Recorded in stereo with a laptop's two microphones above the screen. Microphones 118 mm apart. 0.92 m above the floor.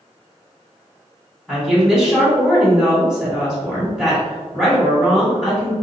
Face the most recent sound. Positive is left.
turn(degrees=-5)  # may be behind; listen again after turning